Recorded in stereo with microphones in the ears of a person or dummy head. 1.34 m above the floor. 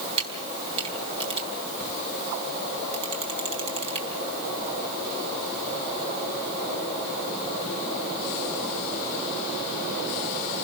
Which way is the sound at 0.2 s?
30° right (ahead or behind).